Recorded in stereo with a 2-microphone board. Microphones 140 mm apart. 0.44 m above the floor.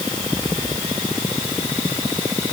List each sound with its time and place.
Only background noise.